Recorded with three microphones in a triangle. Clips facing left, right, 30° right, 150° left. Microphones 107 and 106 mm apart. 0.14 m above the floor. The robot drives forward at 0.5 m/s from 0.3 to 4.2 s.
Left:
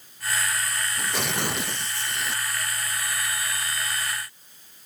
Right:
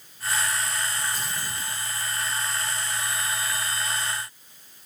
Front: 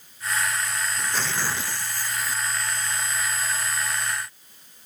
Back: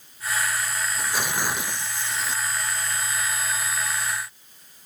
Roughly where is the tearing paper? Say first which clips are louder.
Left 4 dB, back 2 dB; left.